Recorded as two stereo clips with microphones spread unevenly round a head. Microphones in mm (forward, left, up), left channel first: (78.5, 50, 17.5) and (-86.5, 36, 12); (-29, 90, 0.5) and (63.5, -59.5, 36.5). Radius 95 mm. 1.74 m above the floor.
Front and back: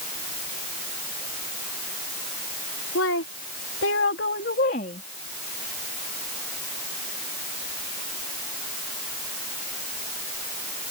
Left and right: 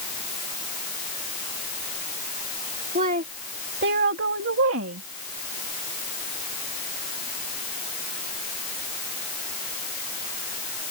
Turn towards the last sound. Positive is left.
turn(degrees=-50)